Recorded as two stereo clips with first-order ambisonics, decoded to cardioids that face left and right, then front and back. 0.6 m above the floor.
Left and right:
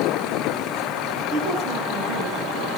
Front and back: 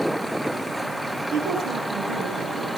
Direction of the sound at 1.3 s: 140° right.